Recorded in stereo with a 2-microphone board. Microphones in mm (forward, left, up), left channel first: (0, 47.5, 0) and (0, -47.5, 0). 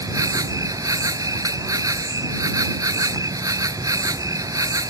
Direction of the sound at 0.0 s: 35° right (ahead or behind).